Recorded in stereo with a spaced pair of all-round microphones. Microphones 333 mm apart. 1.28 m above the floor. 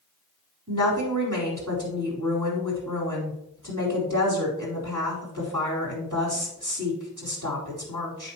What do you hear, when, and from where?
0.7 s a woman speaking: 65° right (ahead or behind), 4 m